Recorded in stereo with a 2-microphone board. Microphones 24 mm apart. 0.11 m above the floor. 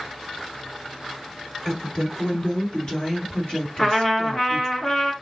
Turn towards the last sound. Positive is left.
turn(degrees=25)  # may be behind; listen again after turning